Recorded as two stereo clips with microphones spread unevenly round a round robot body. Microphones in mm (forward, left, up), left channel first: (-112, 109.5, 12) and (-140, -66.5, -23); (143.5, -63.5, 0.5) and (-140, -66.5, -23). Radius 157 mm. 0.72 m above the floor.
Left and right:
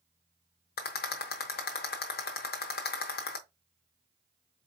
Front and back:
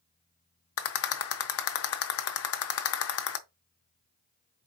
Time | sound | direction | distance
0.8 | a rattle | 45° left | 0.6 m